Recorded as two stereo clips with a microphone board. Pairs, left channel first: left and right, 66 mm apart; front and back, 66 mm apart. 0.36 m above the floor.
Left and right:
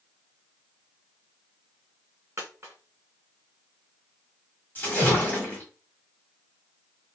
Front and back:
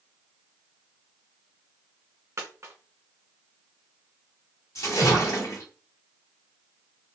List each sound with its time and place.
2.4 s a dropped coin: 140° right, 1.5 m
4.8 s a splash: 30° left, 1.4 m